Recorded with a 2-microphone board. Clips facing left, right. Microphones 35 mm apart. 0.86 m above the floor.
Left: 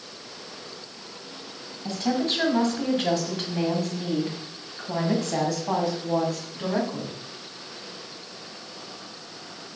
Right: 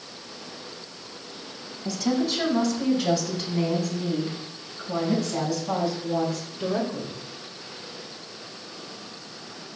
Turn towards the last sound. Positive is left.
turn(degrees=85)